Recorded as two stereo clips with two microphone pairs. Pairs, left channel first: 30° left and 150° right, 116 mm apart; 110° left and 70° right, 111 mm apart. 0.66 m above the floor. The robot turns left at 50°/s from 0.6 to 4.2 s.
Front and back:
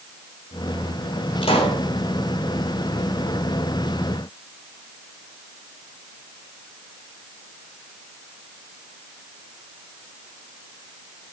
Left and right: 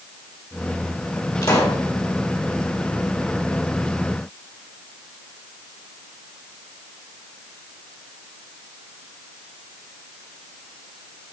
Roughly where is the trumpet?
No trumpet in this recording.